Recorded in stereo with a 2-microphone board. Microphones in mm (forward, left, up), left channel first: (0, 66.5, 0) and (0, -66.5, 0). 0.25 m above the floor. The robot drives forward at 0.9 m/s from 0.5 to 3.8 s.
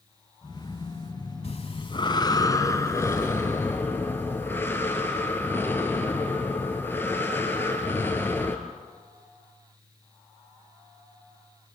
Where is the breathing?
50° left (ahead or behind), 0.9 m; by 8.6 s 15° left (ahead or behind), 2.5 m.